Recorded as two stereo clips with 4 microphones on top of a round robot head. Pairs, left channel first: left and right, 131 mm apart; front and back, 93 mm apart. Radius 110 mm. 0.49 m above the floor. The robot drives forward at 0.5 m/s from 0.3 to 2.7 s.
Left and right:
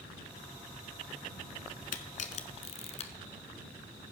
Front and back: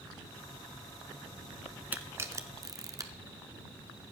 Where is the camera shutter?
105° left, 0.9 m; by 4.1 s 130° left, 1.1 m.